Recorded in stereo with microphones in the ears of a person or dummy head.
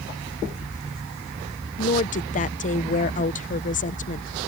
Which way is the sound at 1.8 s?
40° left (ahead or behind).